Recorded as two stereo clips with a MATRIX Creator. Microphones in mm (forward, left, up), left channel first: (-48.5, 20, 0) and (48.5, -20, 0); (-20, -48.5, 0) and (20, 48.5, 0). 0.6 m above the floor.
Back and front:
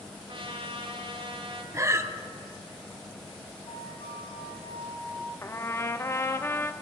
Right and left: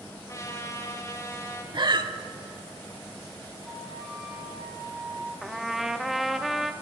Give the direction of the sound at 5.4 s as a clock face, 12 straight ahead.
7 o'clock.